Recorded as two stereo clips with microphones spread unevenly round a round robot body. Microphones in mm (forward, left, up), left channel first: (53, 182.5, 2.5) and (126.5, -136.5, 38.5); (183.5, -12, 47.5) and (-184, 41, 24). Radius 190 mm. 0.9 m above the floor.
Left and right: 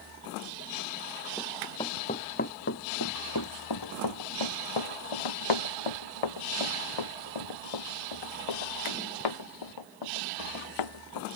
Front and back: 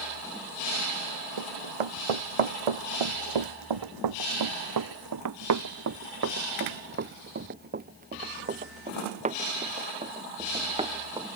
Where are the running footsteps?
170° right; by 11.3 s 95° left.